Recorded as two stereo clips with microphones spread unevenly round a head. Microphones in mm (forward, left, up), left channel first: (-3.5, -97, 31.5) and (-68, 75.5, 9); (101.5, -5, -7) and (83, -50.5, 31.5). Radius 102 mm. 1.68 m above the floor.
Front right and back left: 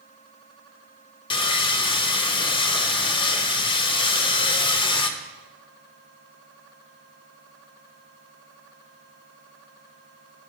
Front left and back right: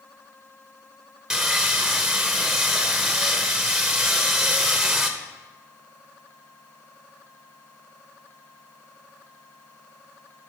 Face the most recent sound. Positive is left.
turn(degrees=-110)